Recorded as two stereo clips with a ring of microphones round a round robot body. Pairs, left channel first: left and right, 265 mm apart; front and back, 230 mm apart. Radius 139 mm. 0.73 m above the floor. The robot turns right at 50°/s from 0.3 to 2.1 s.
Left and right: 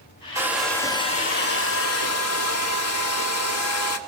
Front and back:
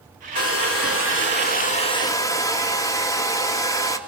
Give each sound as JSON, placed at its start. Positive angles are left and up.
{"t": 0.3, "sound": "a hair dryer", "azimuth_deg": -15, "distance_m": 1.9}